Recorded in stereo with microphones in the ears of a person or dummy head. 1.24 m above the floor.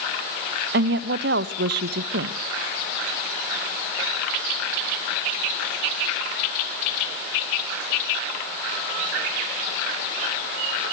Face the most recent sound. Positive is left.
turn(degrees=-60)  # may be behind; listen again after turning